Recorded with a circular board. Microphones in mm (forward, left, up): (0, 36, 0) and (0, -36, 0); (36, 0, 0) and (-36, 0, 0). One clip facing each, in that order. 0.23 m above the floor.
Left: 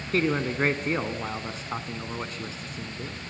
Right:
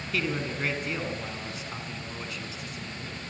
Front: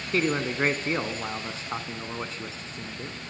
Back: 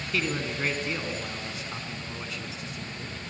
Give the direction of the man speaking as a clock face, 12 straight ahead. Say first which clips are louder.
Left 6 dB, front 5 dB; 10 o'clock.